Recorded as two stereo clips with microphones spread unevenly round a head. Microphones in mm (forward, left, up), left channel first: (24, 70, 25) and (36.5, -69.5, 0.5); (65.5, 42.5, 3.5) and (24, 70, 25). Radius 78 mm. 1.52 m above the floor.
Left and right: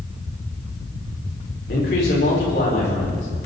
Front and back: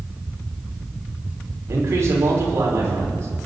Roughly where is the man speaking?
Behind left.